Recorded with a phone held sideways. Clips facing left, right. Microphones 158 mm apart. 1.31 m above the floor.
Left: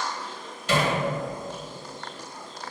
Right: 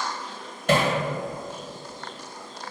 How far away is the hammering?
About 1.4 m.